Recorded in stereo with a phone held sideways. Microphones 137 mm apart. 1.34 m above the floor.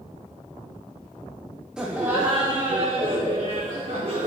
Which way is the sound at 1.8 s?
5° right (ahead or behind).